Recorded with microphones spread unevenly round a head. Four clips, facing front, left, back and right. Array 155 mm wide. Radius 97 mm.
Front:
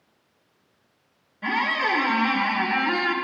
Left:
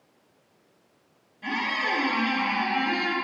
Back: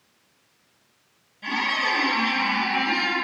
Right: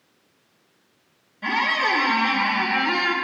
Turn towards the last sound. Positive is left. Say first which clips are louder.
# right 6 dB, front 2 dB
turn(degrees=-70)